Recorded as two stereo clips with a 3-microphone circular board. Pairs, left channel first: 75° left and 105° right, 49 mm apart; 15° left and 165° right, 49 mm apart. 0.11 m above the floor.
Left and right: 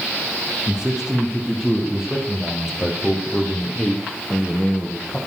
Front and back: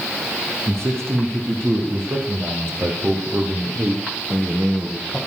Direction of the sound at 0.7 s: Straight behind.